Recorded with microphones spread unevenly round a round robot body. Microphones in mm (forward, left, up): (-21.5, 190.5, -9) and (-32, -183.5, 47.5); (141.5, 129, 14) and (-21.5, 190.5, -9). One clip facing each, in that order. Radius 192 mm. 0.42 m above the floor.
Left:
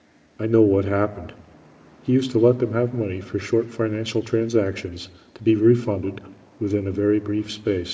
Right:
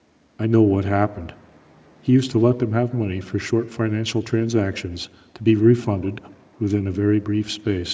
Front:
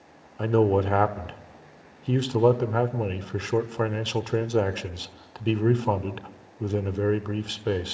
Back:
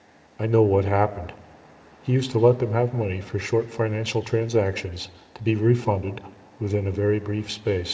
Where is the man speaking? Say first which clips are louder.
Even, back 3 dB; 155° right, 0.7 m.